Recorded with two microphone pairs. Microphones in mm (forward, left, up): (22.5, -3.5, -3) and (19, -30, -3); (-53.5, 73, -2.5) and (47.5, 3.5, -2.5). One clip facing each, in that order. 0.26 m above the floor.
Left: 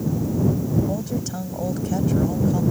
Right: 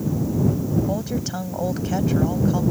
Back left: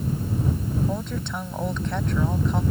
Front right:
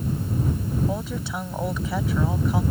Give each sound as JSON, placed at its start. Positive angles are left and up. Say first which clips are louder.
{"t": 0.9, "sound": "a woman speaking", "louder": "right 1 dB, even", "azimuth_deg": -115}